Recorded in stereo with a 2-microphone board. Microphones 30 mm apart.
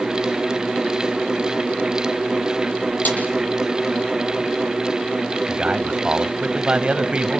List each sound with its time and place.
3.0 s a snare drum: 65° left (ahead or behind), 9 m
5.5 s a man speaking: 40° right (ahead or behind), 1.3 m